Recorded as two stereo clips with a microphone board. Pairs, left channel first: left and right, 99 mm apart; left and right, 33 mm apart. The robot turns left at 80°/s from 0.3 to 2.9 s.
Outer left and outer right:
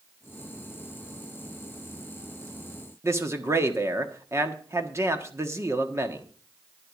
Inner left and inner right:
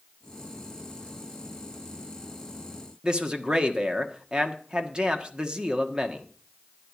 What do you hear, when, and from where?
3.0 s a man speaking: 30° right (ahead or behind), 1.4 m